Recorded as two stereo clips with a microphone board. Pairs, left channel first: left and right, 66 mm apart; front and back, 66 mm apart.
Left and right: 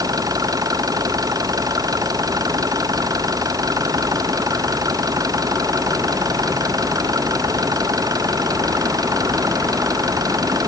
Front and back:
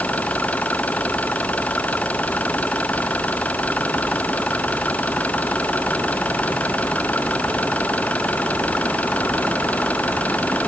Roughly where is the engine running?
Ahead right.